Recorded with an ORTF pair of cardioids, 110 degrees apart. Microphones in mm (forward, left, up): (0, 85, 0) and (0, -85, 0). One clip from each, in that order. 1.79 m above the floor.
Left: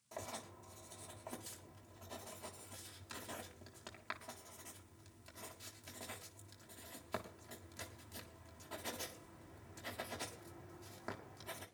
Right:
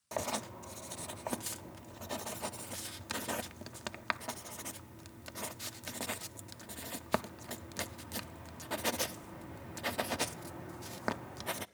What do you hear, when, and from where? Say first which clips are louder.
0.1 s writing: right 11 dB; 65° right, 0.9 m